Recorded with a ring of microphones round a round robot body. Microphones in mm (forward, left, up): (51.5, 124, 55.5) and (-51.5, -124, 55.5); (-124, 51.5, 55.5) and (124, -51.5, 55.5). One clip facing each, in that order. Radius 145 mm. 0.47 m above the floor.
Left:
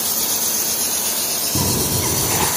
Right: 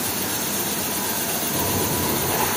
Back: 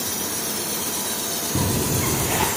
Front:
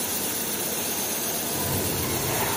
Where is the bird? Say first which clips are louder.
Left 4 dB, back 7 dB; 125° left, 3 m.